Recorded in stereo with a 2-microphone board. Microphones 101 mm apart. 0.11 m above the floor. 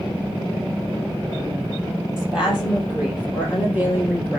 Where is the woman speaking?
10° right (ahead or behind), 3.5 m; by 4.4 s 15° right (ahead or behind), 2 m.